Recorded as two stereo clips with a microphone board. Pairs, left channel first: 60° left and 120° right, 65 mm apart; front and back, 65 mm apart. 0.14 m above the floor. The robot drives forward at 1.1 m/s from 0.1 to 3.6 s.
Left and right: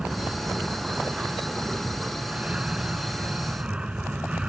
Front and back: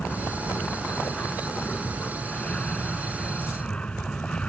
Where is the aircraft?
50° right; by 4.5 s 60° right.